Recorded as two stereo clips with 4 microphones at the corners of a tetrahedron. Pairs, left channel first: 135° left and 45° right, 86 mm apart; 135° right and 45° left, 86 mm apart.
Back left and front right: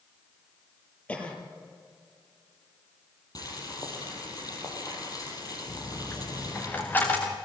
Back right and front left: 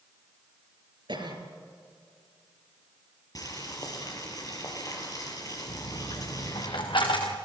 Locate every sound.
1.1 s a cough: 60° left, 4.5 m
3.4 s boiling: straight behind, 5 m
5.7 s a dropped coin: 155° right, 3.5 m